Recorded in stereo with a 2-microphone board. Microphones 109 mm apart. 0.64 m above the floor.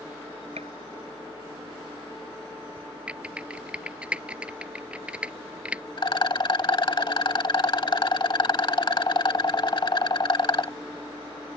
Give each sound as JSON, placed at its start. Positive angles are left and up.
{"t": 0.6, "sound": "a gunshot", "side_deg": -85}
{"t": 3.1, "sound": "typing on a keyboard", "side_deg": -10}
{"t": 6.0, "sound": "a rattle", "side_deg": 45}